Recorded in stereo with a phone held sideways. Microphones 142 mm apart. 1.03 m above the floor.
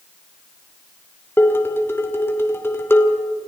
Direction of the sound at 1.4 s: 15° left (ahead or behind).